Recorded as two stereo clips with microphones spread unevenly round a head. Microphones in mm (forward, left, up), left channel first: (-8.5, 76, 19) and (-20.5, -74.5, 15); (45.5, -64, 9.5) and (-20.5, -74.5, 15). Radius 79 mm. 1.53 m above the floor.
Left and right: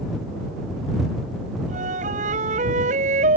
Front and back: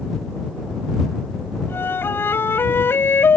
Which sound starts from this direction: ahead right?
A flute, at 1.7 s.